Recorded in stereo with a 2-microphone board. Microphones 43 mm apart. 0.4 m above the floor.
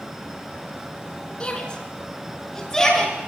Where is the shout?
25° left (ahead or behind), 4.5 m; by 3.1 s 10° left (ahead or behind), 6 m.